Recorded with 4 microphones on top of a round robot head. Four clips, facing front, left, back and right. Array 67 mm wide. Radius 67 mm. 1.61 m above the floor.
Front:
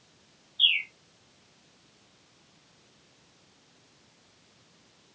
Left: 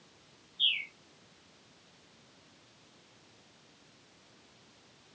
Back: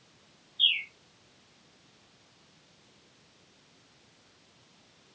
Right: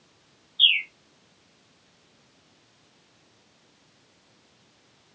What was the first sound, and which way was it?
A bird, 65° right.